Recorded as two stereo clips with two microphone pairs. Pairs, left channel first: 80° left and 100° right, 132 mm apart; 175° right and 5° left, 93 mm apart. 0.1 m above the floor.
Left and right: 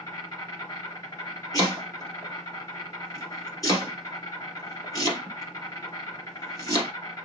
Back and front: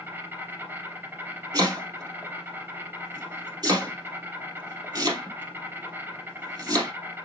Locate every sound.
0.0 s an insect: 40° left, 2.5 m
1.5 s chopping: 25° left, 2.5 m